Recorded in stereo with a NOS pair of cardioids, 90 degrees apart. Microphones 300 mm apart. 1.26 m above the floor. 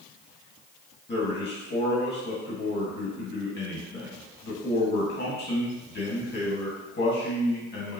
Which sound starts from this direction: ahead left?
A man speaking, at 1.1 s.